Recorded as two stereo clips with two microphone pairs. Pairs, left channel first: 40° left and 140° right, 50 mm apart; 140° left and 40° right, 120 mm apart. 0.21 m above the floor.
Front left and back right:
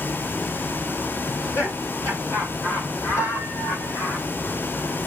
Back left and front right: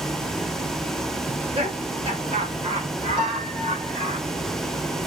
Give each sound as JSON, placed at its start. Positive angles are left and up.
{"t": 1.3, "sound": "laughter", "azimuth_deg": 0, "distance_m": 6.5}
{"t": 3.2, "sound": "a piano", "azimuth_deg": 5, "distance_m": 5.0}